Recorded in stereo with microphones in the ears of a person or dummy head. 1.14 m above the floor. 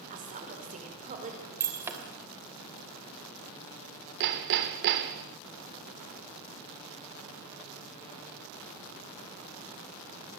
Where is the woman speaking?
50° right (ahead or behind), 4.5 m.